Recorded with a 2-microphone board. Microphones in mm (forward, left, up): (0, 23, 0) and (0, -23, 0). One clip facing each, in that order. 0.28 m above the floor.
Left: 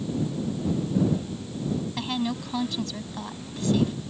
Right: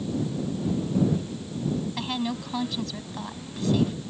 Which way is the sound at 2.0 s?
5° right (ahead or behind).